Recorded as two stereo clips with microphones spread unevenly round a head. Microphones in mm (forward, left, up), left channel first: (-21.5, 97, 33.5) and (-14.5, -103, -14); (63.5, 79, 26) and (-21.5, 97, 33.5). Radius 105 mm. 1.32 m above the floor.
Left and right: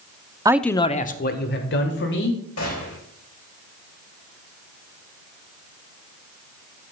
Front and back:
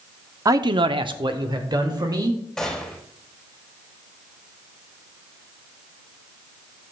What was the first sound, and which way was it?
A man speaking, 140° right.